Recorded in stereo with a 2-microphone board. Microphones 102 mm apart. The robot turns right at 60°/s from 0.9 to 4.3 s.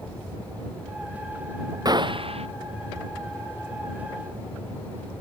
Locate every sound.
1.9 s a gunshot: 140° right; by 2.5 s 105° right